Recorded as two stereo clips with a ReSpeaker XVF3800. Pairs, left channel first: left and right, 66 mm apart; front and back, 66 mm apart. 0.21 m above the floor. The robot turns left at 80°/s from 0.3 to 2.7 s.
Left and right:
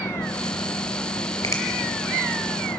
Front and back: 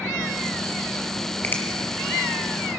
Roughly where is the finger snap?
Ahead left.